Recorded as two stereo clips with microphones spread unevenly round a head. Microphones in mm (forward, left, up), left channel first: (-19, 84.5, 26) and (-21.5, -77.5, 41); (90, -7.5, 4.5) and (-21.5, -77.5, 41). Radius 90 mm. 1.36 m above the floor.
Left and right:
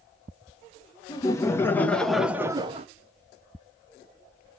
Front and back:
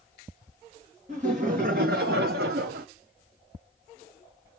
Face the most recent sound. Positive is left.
turn(degrees=-140)